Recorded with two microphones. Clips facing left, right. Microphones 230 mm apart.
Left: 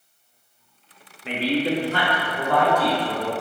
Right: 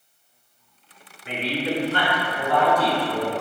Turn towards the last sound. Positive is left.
turn(degrees=75)  # may be behind; listen again after turning